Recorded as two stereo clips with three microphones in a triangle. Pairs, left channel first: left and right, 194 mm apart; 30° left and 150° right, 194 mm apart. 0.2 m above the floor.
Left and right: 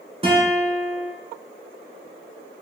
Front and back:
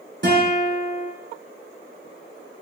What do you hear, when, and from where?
0.2 s a guitar: 145° right, 1.3 m